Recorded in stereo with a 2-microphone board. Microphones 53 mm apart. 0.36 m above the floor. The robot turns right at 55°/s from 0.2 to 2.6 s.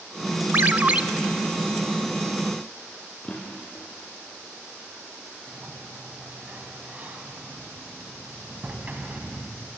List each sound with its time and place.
0.5 s a ringtone: 45° right (ahead or behind), 0.6 m; by 1.0 s 25° right (ahead or behind), 0.6 m
3.2 s a drawer: 20° left (ahead or behind), 7.5 m
5.5 s a sliding door: 35° right (ahead or behind), 2.5 m